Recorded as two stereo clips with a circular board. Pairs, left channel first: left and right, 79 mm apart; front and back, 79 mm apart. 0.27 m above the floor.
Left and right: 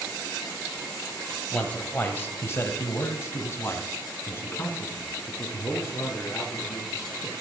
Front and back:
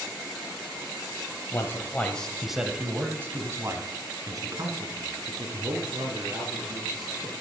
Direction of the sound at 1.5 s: 25° left.